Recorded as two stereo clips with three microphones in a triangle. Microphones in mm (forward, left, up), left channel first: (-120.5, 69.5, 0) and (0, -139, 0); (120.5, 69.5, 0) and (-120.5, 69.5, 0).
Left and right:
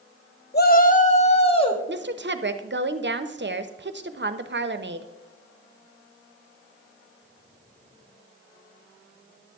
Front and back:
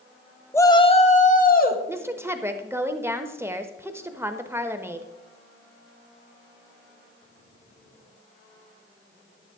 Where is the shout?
80° left, 0.6 m; by 1.8 s 55° left, 1.3 m.